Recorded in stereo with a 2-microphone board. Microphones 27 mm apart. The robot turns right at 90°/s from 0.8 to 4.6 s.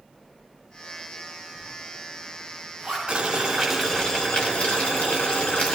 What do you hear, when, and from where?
1.6 s a zipper: 10° right (ahead or behind), 7.5 m; by 3.0 s 45° right (ahead or behind), 7.5 m
3.1 s boiling: 60° right, 3.5 m; by 5.8 s 75° left, 3.5 m